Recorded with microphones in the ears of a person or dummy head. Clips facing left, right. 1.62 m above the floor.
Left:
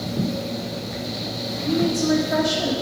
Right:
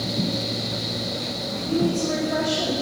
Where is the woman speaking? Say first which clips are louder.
Left 2 dB; 15° left (ahead or behind), 1.3 m.